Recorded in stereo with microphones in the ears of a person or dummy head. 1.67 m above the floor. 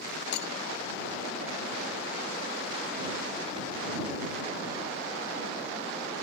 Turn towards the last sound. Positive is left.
turn(degrees=70)  # may be behind; listen again after turning